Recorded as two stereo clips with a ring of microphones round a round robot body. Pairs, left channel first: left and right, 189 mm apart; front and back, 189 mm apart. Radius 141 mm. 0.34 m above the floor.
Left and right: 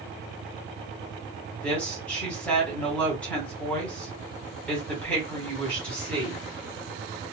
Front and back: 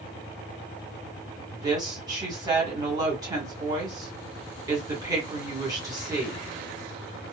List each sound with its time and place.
1.5 s a woman speaking: 160° left, 1.4 m